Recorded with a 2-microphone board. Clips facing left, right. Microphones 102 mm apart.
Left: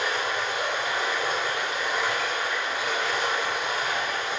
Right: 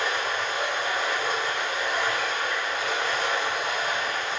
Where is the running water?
25° left (ahead or behind), 1.8 m.